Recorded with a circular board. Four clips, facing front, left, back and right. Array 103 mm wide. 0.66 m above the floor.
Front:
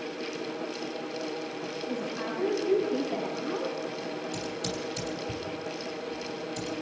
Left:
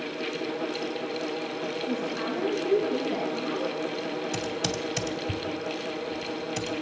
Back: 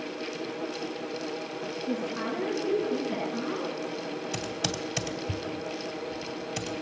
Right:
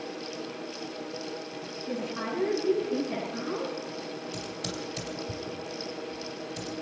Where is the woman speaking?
155° right, 7.5 m; by 3.8 s 145° right, 8 m.